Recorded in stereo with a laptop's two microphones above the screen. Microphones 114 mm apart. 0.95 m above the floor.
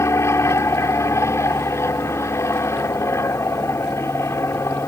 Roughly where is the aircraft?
Left.